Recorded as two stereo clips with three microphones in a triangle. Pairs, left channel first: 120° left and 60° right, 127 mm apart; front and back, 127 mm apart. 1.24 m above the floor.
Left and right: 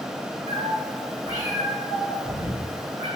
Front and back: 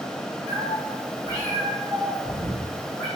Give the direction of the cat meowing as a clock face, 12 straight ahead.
8 o'clock.